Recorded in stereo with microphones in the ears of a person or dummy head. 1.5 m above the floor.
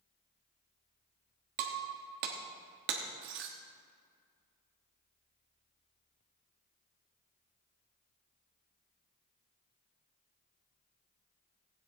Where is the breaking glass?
50° right (ahead or behind), 1.3 m.